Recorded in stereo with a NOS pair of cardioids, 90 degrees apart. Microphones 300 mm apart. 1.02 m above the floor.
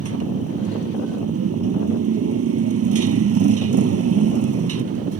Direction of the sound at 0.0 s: 50° right.